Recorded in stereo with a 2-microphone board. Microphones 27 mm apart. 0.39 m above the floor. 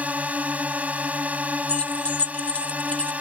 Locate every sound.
0.0 s a drone: 60° right (ahead or behind)
1.7 s keys jangling: 50° left (ahead or behind)